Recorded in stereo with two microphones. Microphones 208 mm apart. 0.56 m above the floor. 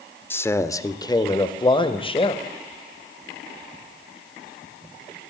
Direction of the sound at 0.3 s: 10° left (ahead or behind).